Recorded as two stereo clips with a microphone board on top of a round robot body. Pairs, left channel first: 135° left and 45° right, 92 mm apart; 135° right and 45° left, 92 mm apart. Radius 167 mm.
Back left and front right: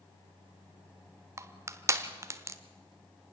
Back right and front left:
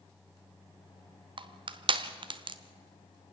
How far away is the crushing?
About 0.9 m.